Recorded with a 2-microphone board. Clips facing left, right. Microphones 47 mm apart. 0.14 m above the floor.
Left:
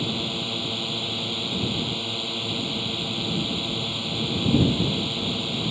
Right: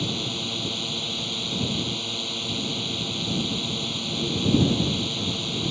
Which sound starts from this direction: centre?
A drone, at 0.0 s.